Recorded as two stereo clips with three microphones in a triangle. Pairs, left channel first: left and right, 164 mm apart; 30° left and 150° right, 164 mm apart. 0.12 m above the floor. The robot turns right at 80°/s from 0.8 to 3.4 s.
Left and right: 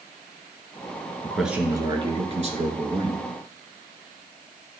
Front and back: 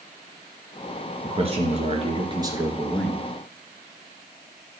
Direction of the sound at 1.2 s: 170° left.